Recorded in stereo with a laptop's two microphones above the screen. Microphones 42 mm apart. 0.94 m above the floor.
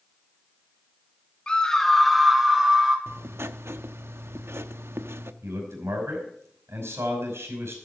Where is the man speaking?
80° right, 5 m.